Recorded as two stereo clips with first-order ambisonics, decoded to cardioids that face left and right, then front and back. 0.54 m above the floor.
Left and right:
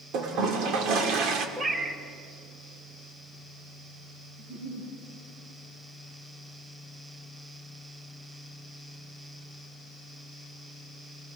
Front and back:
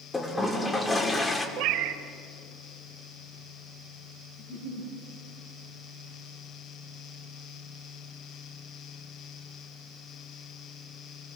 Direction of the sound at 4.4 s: 65° right.